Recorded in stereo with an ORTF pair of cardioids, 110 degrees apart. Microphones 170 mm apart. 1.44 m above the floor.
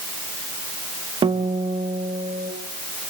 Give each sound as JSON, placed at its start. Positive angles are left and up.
{"t": 1.2, "sound": "a guitar", "azimuth_deg": -30, "distance_m": 2.0}